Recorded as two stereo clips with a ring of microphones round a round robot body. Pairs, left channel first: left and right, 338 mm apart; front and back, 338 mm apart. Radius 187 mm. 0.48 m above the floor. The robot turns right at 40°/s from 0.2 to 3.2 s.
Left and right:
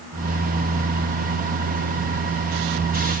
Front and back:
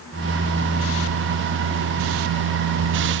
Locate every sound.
Only background noise.